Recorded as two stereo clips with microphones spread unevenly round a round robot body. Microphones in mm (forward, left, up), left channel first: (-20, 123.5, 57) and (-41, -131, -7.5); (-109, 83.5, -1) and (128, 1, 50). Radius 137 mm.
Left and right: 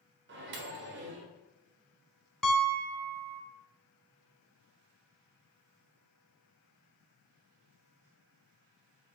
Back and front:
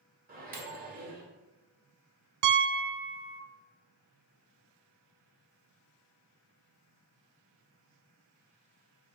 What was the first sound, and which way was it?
A microwave, 80° right.